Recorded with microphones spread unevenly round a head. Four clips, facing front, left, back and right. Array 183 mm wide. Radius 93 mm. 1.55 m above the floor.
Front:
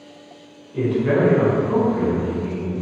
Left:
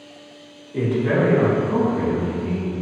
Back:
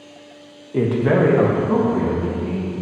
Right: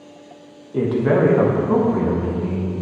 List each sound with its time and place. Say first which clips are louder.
0.7 s a man speaking: right 3 dB, back 2 dB; 165° right, 1.4 m; by 2.7 s 120° right, 3 m